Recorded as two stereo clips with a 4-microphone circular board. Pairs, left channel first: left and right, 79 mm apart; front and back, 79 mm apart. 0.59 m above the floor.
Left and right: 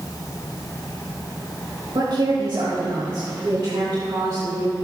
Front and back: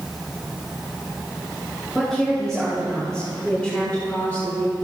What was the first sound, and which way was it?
A woman speaking, 90° right.